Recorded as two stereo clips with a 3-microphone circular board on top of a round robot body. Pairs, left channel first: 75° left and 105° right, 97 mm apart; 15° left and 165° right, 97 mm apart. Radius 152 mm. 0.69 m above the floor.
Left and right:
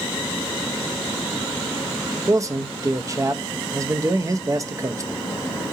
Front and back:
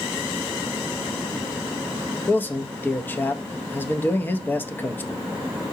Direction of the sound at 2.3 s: 50° right.